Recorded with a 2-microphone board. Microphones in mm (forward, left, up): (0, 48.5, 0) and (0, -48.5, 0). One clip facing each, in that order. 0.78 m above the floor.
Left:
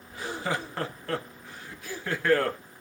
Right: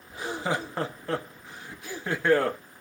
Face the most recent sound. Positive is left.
turn(degrees=-20)  # may be behind; listen again after turning